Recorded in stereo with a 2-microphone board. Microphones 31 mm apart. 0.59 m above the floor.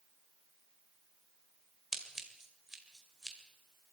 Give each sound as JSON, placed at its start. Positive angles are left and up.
{"t": 1.9, "sound": "scissors", "side_deg": -15, "distance_m": 2.0}